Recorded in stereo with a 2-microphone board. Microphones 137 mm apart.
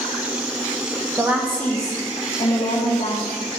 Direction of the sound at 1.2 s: 20° right (ahead or behind).